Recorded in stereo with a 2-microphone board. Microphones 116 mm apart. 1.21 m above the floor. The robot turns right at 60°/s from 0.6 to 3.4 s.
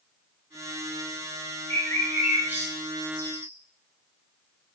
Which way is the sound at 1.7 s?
30° left (ahead or behind).